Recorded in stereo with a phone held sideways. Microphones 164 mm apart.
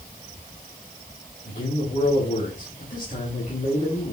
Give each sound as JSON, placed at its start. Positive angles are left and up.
{"t": 1.4, "sound": "a man speaking", "side_deg": 60, "distance_m": 3.5}